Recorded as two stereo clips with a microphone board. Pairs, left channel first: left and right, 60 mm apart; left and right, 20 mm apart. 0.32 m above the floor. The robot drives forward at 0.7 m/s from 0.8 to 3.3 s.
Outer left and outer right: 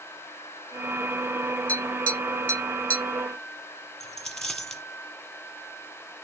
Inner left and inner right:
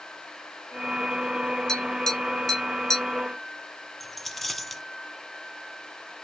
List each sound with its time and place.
1.7 s tapping: 25° left (ahead or behind), 0.9 m; by 3.0 s 20° left (ahead or behind), 1.2 m
4.0 s a dropped coin: 5° left (ahead or behind), 0.9 m